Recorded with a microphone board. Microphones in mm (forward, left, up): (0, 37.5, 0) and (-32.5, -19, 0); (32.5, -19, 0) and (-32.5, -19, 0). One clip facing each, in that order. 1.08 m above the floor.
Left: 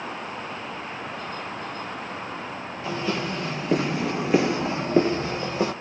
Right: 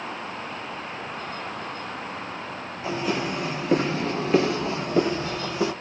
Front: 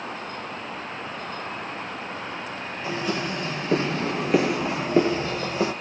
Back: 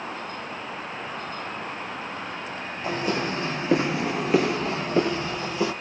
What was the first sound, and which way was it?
Footsteps, straight behind.